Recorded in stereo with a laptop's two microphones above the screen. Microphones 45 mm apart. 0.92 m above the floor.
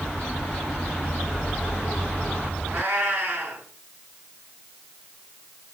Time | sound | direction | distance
2.7 | a cat meowing | 40° right (ahead or behind) | 6 m